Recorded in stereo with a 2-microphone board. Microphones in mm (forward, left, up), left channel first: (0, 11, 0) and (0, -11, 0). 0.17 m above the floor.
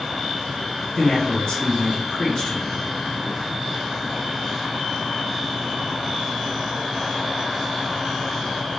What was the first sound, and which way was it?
A man speaking, 40° left (ahead or behind).